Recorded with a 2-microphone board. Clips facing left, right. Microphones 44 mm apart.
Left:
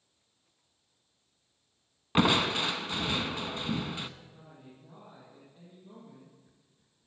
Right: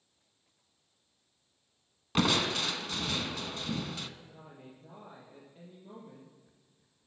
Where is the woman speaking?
50° right (ahead or behind), 4 m.